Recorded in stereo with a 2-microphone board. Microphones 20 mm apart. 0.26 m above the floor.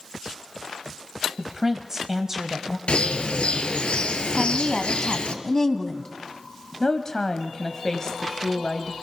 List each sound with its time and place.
1.4 s a woman speaking: 25° right (ahead or behind), 1.5 m
2.9 s a bird: 80° left, 1.7 m
4.3 s a woman speaking: 30° left (ahead or behind), 2 m
6.8 s a woman speaking: 30° left (ahead or behind), 1.7 m